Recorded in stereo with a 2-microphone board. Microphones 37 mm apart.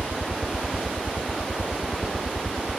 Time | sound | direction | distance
0.0 | a helicopter | 15° right (ahead or behind) | ?